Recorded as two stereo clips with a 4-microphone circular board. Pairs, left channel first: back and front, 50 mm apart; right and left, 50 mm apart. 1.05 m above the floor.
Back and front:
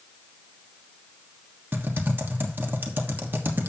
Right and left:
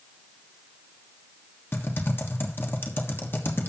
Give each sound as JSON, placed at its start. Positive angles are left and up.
{"t": 1.7, "sound": "typing on a keyboard", "azimuth_deg": -50, "distance_m": 1.3}